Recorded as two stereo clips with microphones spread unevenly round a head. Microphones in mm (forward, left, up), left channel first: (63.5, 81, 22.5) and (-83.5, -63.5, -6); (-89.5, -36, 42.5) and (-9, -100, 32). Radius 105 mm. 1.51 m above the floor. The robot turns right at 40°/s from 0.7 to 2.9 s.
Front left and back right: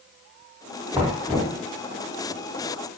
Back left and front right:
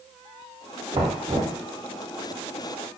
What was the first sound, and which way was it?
Knocking, 50° right.